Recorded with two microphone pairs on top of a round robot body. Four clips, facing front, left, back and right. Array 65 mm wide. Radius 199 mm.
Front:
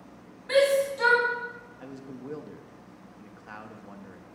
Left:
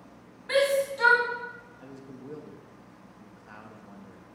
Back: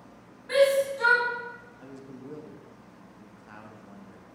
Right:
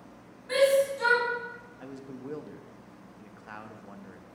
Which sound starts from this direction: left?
A shout, at 0.5 s.